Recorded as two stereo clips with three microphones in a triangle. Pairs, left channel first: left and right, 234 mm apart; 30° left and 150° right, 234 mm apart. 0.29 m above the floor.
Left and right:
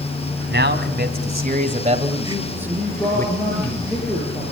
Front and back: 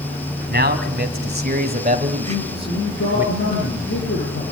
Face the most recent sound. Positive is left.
turn(degrees=5)